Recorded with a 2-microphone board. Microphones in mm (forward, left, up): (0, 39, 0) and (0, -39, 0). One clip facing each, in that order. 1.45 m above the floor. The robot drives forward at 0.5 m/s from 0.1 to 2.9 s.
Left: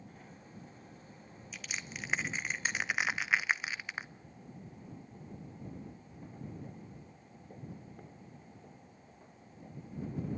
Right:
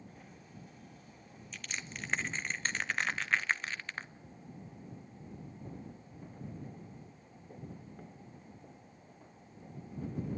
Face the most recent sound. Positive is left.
turn(degrees=10)  # may be behind; listen again after turning